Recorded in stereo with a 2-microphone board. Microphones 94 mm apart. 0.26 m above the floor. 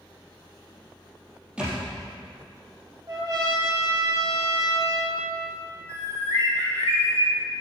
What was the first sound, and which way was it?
A thud, 10° right (ahead or behind).